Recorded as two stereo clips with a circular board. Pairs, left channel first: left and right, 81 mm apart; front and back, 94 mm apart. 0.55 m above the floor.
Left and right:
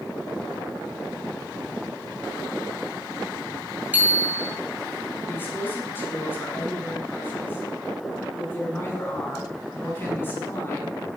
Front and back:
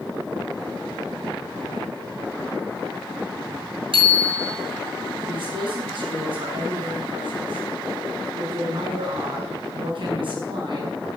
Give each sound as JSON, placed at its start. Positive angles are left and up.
{"t": 3.9, "sound": "a bicycle bell", "azimuth_deg": -160, "distance_m": 4.0}
{"t": 5.3, "sound": "a man speaking", "azimuth_deg": 155, "distance_m": 6.5}